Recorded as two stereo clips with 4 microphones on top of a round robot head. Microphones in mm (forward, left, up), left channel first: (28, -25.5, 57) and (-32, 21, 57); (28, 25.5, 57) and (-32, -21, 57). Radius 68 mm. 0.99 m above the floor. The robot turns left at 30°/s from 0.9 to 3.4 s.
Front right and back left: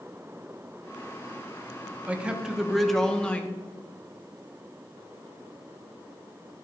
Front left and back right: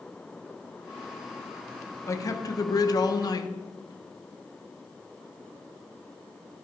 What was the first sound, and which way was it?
A man speaking, 75° left.